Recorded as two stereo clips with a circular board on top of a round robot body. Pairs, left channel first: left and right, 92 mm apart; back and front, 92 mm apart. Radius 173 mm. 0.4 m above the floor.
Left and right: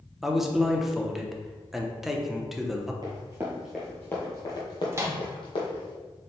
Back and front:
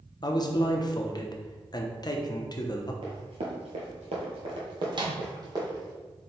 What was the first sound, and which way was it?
A man speaking, 175° right.